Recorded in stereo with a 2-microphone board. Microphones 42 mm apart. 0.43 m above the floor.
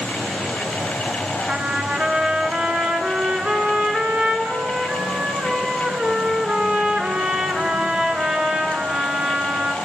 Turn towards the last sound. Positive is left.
turn(degrees=-30)  # may be behind; listen again after turning